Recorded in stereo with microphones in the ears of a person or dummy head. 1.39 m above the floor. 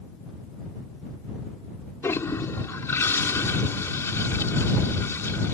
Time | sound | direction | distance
2.0 | a toilet flushing | 15° left (ahead or behind) | ?